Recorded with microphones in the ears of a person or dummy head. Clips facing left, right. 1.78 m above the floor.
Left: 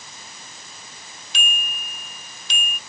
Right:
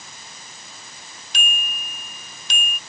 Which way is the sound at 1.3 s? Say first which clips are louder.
Right 1 dB; 40° right (ahead or behind).